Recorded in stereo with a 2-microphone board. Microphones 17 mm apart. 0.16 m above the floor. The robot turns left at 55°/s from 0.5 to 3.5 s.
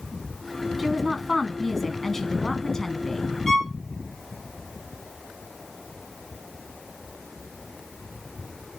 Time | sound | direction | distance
0.8 | a woman speaking | 10° right (ahead or behind) | 1.4 m
3.5 | a violin | 25° left (ahead or behind) | 2.5 m